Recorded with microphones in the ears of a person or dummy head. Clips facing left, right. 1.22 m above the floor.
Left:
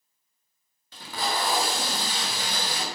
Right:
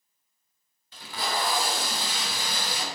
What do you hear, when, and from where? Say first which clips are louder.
0.9 s tape being pulled: left 1 dB; 45° left (ahead or behind), 0.6 m